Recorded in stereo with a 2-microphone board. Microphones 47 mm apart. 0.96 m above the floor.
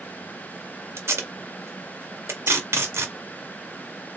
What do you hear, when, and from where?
1.0 s tape being pulled: 65° right (ahead or behind), 1.2 m